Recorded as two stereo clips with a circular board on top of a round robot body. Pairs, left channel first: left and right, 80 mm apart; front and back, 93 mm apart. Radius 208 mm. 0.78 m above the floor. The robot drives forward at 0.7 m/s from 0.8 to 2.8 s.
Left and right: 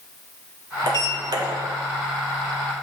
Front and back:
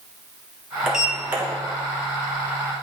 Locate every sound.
0.9 s a sliding door: 95° right, 1.7 m; by 1.4 s 110° right, 1.8 m